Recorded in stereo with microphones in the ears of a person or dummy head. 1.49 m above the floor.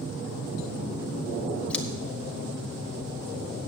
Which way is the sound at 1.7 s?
5° left (ahead or behind).